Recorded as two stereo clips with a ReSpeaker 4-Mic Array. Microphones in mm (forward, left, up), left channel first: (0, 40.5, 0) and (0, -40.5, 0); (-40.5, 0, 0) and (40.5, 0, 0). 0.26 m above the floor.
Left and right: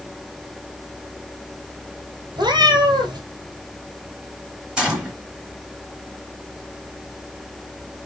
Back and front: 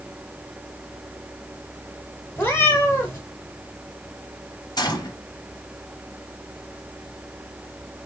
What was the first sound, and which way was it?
A cat meowing, 120° right.